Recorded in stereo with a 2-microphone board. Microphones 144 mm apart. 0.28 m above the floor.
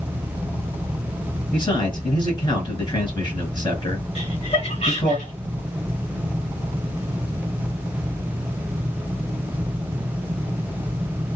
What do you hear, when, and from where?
1.5 s a man speaking: 35° left (ahead or behind), 1.8 m
4.2 s laughter: 50° left (ahead or behind), 1.8 m